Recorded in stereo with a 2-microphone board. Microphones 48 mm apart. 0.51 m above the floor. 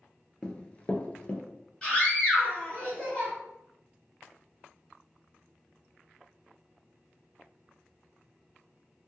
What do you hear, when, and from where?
0.4 s running footsteps: 20° left (ahead or behind), 0.5 m; by 1.4 s 25° left (ahead or behind), 0.7 m
1.8 s a scream: 20° left (ahead or behind), 1.5 m